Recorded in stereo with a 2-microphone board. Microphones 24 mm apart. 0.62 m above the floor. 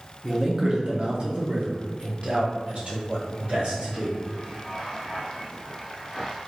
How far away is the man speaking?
About 0.8 m.